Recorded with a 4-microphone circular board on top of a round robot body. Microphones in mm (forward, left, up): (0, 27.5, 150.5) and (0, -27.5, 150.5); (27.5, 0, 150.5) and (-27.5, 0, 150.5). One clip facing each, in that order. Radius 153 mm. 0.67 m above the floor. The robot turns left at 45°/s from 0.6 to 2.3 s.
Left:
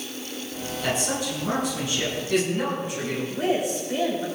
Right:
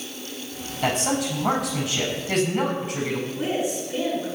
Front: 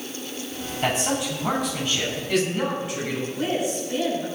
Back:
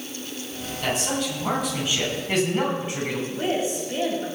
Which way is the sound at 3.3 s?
120° left.